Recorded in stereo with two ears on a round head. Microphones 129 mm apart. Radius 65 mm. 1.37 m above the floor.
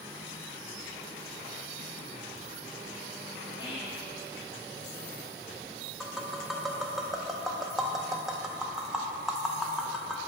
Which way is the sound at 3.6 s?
35° left (ahead or behind).